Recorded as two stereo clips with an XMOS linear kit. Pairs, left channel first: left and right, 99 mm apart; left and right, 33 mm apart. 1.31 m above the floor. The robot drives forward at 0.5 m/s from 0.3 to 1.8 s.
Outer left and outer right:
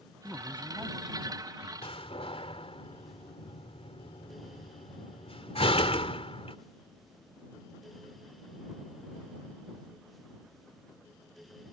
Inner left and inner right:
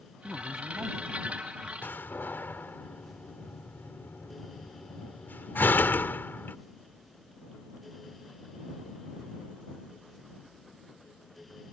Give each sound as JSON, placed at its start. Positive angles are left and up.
{"t": 0.2, "sound": "a man speaking", "side_deg": -20}
{"t": 1.8, "sound": "a door slam", "side_deg": 80}